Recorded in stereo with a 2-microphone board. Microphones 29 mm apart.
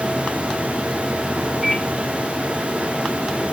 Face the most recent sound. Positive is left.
turn(degrees=-5)  # may be behind; listen again after turning